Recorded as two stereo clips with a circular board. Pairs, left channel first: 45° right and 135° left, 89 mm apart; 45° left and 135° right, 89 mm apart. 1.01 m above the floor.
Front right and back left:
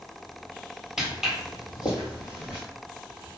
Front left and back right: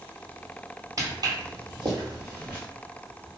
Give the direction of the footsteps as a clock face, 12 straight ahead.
5 o'clock.